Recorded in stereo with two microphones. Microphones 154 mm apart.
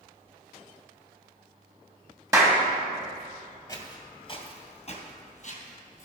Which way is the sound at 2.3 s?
20° right (ahead or behind).